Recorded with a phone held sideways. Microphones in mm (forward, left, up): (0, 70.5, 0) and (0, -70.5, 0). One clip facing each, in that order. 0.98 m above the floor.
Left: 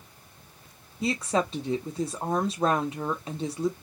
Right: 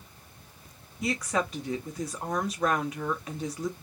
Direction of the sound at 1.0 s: 25° left (ahead or behind).